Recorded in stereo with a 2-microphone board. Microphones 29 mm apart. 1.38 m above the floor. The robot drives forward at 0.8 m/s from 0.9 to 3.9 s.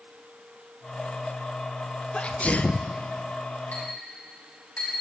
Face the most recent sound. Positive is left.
turn(degrees=60)  # may be behind; listen again after turning